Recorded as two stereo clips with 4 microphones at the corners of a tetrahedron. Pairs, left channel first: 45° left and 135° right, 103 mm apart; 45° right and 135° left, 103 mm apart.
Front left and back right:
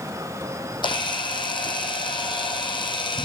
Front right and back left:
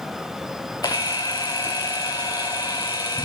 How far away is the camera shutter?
About 1.2 m.